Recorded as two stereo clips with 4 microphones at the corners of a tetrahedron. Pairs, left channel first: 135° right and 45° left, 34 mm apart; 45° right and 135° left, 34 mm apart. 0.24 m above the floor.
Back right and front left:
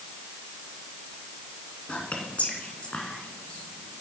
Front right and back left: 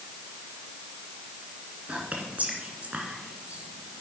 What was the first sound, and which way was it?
Whispering, 175° right.